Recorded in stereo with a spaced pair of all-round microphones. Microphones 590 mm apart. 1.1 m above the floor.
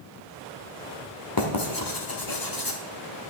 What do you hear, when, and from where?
1.4 s writing: 35° left (ahead or behind), 1.8 m